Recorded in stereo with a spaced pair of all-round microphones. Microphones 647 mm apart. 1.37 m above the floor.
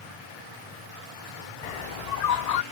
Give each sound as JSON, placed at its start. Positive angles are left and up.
{"t": 1.6, "sound": "a bird", "side_deg": 75}